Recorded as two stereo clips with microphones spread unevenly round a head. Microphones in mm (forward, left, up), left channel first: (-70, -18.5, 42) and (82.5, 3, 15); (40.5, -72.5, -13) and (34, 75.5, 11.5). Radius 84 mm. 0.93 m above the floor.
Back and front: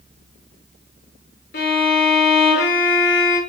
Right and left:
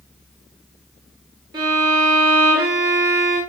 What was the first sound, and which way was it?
A violin, 160° left.